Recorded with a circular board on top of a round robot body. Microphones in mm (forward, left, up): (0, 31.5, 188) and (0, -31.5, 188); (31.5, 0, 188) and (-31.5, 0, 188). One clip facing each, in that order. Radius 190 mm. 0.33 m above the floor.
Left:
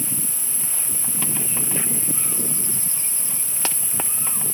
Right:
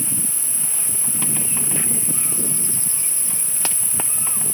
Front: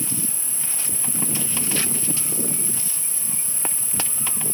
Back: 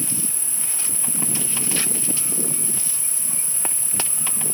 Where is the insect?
155° right, 9.5 m.